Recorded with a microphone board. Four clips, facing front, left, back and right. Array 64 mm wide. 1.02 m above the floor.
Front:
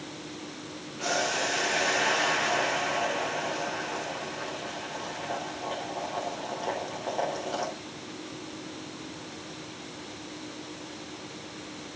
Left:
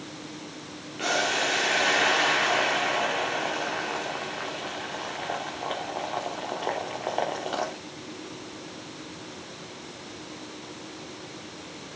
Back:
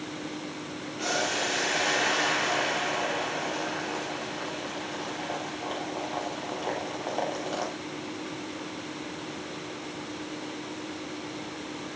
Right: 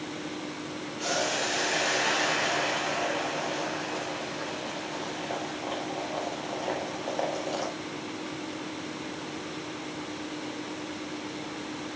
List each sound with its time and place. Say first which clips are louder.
1.0 s boiling: left 4 dB, front 1 dB; 100° left, 3.5 m